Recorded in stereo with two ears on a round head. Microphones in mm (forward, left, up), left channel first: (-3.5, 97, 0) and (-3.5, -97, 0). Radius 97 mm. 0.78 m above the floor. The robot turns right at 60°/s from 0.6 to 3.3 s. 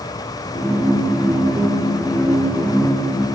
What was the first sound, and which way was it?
Only background noise.